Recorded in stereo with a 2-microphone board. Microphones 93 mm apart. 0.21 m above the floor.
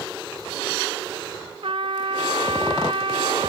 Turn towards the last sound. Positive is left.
turn(degrees=-60)  # may be behind; listen again after turning